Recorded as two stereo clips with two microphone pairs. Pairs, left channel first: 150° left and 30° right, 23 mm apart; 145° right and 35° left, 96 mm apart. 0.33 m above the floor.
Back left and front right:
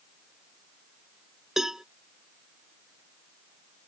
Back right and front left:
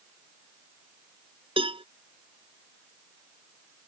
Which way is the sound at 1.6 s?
40° left.